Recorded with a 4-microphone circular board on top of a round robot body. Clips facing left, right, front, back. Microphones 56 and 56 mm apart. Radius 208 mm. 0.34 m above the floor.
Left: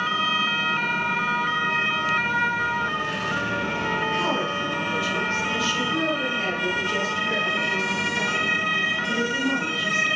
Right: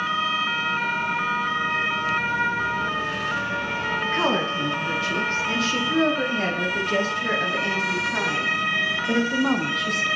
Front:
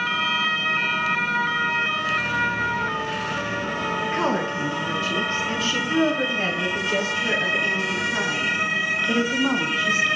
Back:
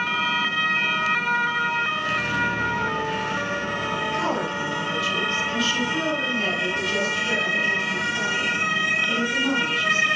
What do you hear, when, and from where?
4.0 s a woman speaking: 55° right, 8.5 m; by 10.1 s 65° right, 5.5 m